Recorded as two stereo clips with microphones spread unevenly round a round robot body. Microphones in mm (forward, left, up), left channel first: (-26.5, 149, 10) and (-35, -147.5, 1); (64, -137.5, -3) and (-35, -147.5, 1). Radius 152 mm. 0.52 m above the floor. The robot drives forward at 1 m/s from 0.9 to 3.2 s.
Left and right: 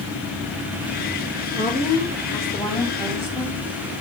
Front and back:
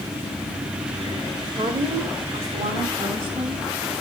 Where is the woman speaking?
150° left, 1.9 m; by 3.6 s 165° left, 3.5 m.